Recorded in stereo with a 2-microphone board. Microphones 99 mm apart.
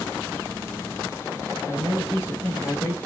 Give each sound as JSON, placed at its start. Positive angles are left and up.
{"t": 1.7, "sound": "a man speaking", "side_deg": 35, "distance_m": 4.0}